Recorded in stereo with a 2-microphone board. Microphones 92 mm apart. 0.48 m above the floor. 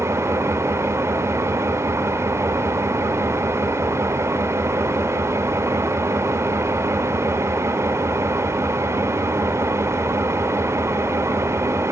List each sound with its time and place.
0.0 s an engine running: 30° right (ahead or behind), 0.8 m